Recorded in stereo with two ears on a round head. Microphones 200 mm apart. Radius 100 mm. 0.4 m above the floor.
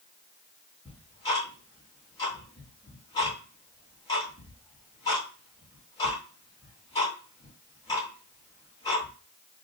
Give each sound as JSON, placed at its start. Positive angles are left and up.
{"t": 0.8, "sound": "ticking", "side_deg": 20, "distance_m": 2.5}